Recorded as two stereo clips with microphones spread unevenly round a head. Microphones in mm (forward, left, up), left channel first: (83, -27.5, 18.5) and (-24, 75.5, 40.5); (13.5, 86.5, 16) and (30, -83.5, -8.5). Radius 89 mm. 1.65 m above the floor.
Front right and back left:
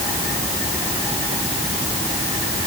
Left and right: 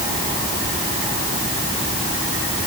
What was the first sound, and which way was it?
Only background noise.